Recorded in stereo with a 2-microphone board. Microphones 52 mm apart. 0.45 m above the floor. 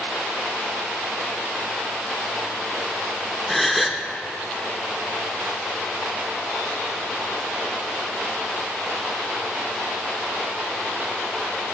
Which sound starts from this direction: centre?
A gasp, at 3.5 s.